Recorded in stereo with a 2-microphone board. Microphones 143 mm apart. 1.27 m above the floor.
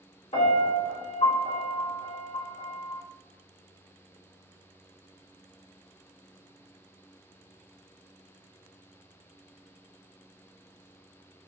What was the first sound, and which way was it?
A piano, 45° left (ahead or behind).